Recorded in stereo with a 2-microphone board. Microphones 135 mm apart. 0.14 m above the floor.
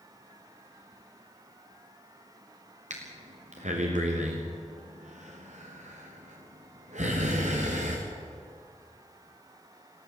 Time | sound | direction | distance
2.9 | breathing | 70° right (ahead or behind) | 5 m